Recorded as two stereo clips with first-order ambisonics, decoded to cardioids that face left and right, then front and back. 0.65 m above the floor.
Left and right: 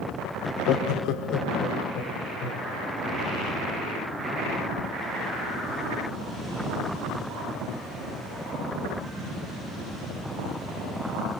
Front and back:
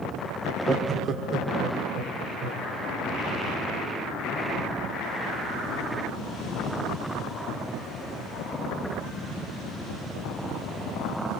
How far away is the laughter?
About 0.7 m.